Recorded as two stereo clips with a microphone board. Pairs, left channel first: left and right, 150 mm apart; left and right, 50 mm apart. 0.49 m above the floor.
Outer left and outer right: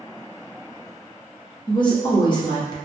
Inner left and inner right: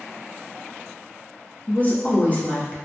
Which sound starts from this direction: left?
A woman speaking, at 1.7 s.